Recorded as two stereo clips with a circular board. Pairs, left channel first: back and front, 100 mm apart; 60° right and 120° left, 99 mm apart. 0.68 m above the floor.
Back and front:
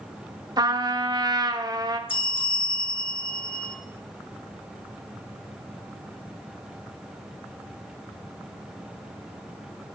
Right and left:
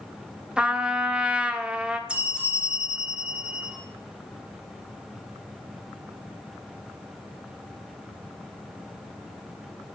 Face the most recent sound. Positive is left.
turn(degrees=-160)